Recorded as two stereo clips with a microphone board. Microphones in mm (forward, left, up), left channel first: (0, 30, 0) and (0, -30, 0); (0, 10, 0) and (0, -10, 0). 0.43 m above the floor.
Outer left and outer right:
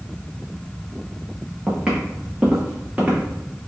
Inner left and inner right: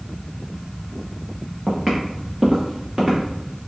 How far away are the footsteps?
About 1.8 m.